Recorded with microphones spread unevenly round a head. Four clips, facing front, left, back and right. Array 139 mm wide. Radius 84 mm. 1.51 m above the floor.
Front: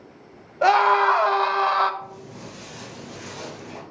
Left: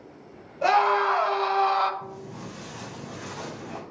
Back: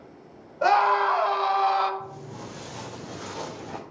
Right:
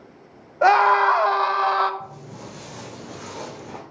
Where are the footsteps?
140° right, 5 m; by 3.8 s 135° right, 3.5 m.